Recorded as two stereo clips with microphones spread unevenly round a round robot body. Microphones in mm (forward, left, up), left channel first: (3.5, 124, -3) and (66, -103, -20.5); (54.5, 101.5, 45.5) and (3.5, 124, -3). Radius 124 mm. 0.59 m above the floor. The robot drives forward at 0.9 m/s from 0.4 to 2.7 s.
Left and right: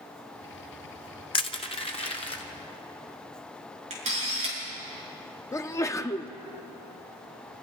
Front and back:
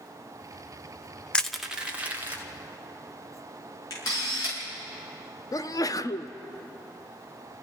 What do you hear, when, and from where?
1.3 s crushing: 165° left, 0.5 m; by 2.4 s 175° left, 1.3 m
3.9 s a camera shutter: 15° right, 7 m
5.5 s a sneeze: 35° left, 0.7 m